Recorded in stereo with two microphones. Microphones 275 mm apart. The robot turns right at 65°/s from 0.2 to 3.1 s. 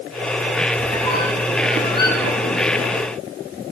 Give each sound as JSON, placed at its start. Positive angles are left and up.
{"t": 0.8, "sound": "a squeak", "side_deg": 45, "distance_m": 3.5}